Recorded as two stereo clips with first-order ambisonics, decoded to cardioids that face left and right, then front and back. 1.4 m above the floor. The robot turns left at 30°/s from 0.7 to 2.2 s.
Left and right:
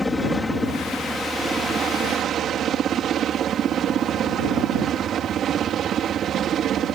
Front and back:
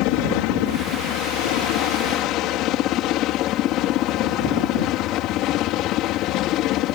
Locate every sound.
0.0 s a helicopter: 10° left; by 7.0 s 35° right